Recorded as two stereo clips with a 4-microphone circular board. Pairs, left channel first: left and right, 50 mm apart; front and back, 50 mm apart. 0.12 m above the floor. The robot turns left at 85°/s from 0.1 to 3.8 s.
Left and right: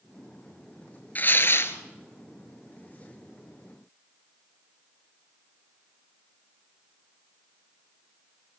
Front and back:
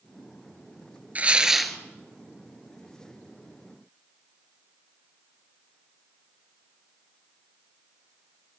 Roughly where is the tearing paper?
Behind left.